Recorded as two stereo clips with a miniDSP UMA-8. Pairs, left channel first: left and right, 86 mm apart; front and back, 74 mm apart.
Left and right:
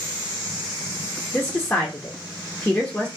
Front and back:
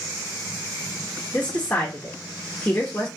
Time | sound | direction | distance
1.3 | a woman speaking | 50° left | 0.6 m